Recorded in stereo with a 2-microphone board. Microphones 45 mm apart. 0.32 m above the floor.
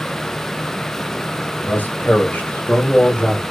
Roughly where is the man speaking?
Left.